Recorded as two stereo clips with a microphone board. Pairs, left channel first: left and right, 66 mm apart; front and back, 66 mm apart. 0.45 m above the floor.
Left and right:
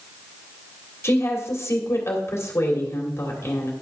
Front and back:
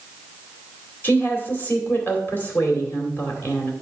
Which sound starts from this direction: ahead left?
A woman speaking, at 1.0 s.